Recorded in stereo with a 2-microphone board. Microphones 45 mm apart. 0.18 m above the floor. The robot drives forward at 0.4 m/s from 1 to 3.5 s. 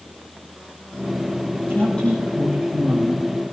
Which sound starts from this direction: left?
A woman speaking, at 1.7 s.